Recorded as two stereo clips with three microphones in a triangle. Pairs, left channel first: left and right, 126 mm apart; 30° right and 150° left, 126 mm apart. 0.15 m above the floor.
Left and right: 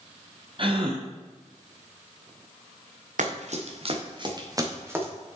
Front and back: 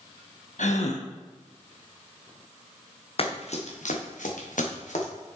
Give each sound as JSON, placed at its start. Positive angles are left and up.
{"t": 0.6, "sound": "a gasp", "azimuth_deg": -45, "distance_m": 1.4}
{"t": 3.2, "sound": "running footsteps", "azimuth_deg": -70, "distance_m": 2.0}